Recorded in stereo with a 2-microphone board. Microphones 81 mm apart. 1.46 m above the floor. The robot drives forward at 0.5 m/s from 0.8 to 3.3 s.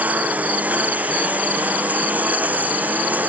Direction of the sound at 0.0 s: 20° right (ahead or behind).